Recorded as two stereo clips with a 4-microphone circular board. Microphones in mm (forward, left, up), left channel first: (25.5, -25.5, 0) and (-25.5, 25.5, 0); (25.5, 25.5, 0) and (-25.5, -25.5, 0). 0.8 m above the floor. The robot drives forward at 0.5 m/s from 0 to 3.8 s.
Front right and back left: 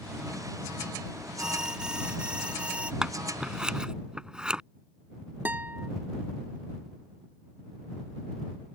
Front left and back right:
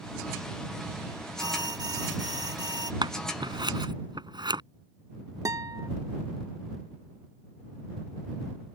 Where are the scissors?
145° right.